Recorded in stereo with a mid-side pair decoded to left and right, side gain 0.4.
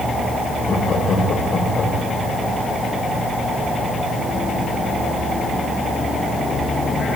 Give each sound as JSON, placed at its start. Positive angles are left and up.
{"t": 0.7, "sound": "laughter", "azimuth_deg": 55, "distance_m": 7.0}